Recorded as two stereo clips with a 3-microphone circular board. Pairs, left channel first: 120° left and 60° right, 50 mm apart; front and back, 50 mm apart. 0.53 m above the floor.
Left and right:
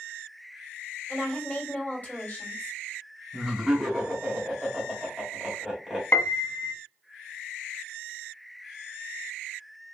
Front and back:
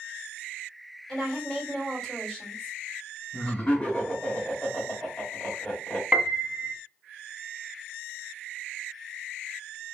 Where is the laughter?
20° left, 1.5 m.